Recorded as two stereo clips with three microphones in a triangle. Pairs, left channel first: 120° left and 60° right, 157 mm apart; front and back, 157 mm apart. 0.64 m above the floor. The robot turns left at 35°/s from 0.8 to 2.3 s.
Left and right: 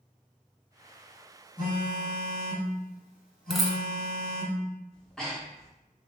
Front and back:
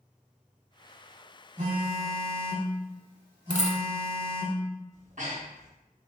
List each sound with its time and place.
1.6 s a phone buzzing: 150° left, 2.0 m; by 4.5 s 125° left, 2.0 m
3.5 s a dropped coin: 30° left, 0.7 m
4.9 s breathing: 155° right, 1.0 m